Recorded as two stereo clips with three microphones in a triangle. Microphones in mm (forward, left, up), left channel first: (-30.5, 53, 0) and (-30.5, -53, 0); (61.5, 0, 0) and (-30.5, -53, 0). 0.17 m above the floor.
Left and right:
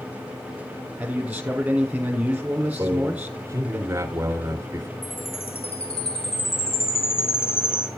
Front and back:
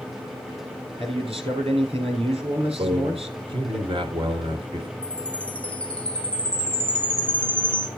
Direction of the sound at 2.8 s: 145° right.